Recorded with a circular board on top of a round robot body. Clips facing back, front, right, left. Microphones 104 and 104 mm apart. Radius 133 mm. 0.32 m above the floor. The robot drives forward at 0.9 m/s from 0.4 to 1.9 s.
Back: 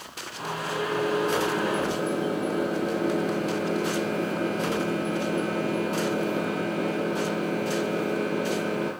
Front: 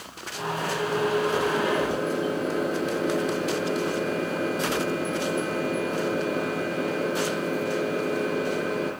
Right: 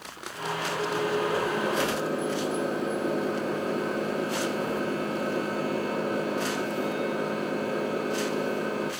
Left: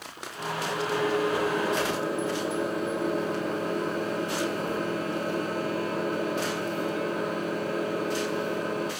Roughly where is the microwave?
Behind right.